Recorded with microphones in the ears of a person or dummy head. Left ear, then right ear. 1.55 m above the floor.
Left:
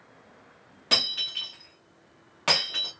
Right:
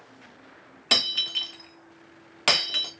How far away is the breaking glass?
About 0.7 m.